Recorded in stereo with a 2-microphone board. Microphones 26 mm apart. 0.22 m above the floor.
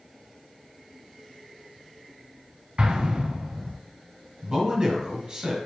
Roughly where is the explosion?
Right.